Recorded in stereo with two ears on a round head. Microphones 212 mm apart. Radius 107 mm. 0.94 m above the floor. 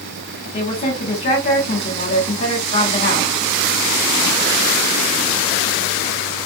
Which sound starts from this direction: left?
A woman speaking, at 0.5 s.